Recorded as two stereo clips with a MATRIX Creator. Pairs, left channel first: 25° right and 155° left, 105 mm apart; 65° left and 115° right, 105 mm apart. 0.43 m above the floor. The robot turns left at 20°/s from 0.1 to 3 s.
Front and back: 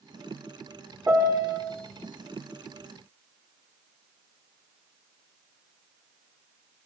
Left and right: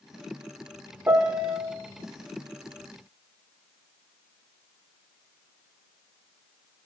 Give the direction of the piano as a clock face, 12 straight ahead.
5 o'clock.